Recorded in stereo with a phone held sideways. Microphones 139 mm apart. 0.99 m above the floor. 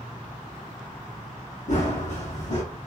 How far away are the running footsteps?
About 1.9 m.